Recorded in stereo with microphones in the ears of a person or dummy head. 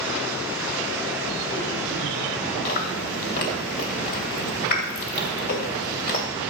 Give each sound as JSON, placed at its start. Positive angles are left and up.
{"t": 2.6, "sound": "chewing", "side_deg": 50, "distance_m": 2.5}